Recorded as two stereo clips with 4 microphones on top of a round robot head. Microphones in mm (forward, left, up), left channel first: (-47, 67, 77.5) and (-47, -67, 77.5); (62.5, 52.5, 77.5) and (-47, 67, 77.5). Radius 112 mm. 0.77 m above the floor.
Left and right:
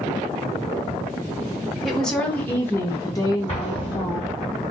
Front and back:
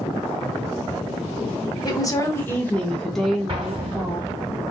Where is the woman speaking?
Straight ahead, 1.2 m; by 4.3 s 110° left, 1.4 m.